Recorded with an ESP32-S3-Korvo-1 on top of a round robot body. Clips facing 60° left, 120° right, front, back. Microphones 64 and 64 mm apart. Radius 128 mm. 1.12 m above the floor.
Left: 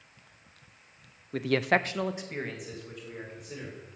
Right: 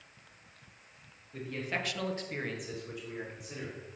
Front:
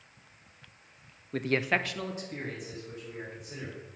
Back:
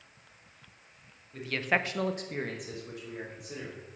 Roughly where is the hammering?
I don't hear hammering.